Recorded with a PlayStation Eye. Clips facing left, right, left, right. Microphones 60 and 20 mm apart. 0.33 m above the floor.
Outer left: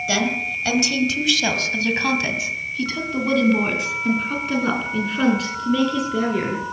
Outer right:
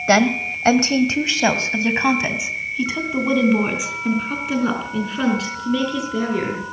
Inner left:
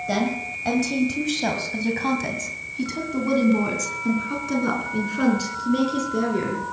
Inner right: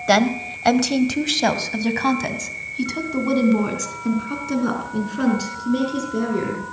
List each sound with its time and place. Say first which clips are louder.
0.1 s a woman speaking: outer right 7 dB, inner right 8 dB; 50° right (ahead or behind), 1.6 m; by 6.6 s 5° left (ahead or behind), 5 m